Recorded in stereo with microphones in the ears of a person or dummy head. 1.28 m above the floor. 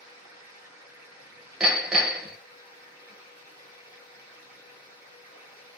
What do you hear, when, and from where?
0.0 s running water: 5° right (ahead or behind), 1.0 m
1.6 s hammering: 10° right (ahead or behind), 0.7 m